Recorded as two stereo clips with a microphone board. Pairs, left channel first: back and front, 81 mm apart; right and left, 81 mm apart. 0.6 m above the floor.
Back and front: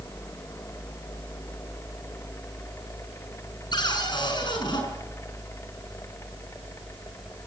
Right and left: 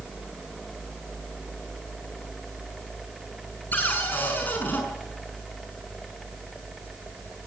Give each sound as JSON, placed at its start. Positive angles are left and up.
{"t": 3.7, "sound": "a cupboard door", "azimuth_deg": -160, "distance_m": 6.0}